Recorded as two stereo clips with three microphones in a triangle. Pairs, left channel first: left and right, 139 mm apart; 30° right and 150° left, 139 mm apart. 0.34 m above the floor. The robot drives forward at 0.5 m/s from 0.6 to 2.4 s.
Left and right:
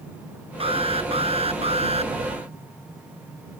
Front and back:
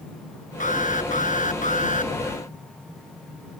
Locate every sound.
0.6 s an alarm: 45° right; by 2.1 s 50° right